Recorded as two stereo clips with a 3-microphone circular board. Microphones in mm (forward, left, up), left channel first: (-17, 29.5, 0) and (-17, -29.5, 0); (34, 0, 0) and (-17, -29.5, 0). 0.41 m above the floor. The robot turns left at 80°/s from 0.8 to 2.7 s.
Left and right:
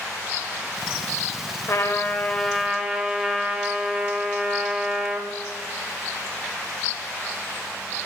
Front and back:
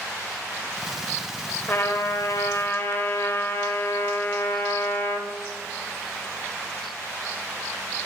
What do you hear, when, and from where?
1.7 s a trumpet: 70° left, 1.0 m; by 5.3 s 10° right, 1.0 m